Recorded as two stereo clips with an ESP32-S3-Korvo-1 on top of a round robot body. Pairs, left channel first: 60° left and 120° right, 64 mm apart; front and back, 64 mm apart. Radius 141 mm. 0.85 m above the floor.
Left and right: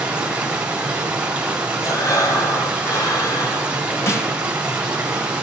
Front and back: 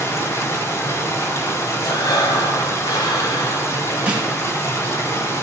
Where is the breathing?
25° left, 2 m.